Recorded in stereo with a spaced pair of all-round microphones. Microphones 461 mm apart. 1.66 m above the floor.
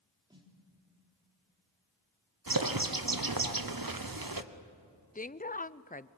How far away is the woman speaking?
About 0.5 m.